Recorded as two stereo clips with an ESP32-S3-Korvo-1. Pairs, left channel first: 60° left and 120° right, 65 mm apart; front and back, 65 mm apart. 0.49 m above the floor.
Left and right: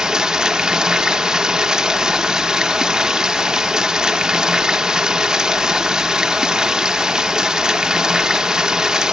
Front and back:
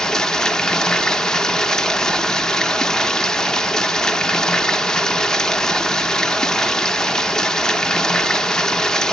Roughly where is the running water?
Ahead right.